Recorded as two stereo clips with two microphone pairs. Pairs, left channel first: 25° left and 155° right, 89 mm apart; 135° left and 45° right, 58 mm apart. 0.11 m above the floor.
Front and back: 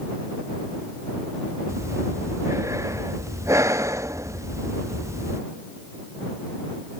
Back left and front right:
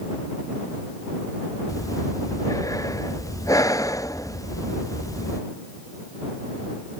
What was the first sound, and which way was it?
Breathing, 145° left.